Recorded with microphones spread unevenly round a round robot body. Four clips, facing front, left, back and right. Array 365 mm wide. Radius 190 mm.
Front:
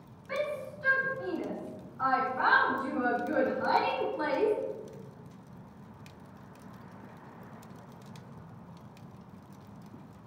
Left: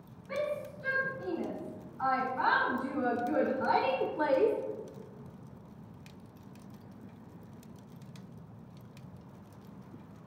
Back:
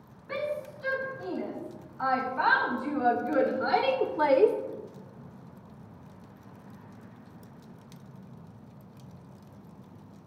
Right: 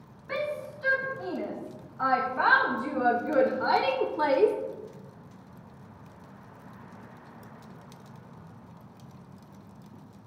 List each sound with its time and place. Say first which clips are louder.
0.3 s a shout: right 2 dB, back 1 dB; 95° right, 3 m; by 4.5 s 155° right, 1.3 m